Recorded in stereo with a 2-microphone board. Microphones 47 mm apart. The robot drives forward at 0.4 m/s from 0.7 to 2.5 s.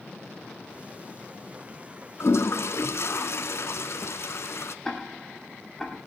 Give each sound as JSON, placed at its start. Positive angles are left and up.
{"t": 2.2, "sound": "a toilet flushing", "side_deg": 70, "distance_m": 0.7}
{"t": 4.8, "sound": "ticking", "side_deg": 5, "distance_m": 1.8}